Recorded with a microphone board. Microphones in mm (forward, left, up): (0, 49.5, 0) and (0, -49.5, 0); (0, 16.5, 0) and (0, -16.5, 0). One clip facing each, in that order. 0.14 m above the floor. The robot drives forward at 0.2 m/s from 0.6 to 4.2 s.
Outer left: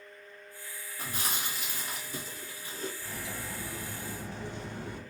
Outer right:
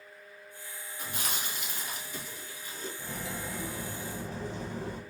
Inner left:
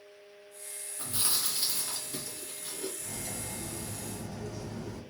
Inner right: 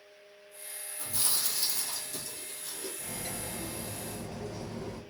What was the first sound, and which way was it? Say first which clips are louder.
Chewing: outer left 1 dB, inner left 1 dB; 40° left (ahead or behind).